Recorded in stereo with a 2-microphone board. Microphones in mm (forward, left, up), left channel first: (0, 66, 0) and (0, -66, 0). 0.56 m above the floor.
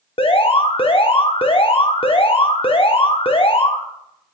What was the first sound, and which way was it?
An alarm, 45° left (ahead or behind).